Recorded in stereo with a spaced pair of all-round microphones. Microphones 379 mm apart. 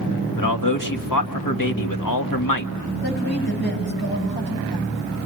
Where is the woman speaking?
85° left, 9 m.